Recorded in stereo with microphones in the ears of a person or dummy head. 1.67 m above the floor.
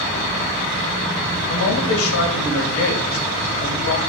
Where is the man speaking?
80° left, 2.5 m.